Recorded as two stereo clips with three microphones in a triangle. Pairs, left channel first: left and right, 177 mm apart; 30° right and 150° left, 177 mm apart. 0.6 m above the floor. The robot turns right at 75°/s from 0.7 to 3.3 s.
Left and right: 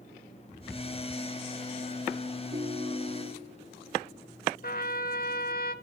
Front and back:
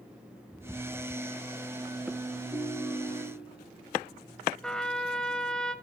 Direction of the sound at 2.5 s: 110° right.